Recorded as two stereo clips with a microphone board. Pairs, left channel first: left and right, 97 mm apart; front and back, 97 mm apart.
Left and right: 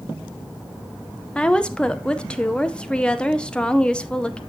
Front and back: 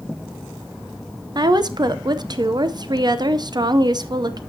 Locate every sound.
1.4 s a woman speaking: 165° left, 0.6 m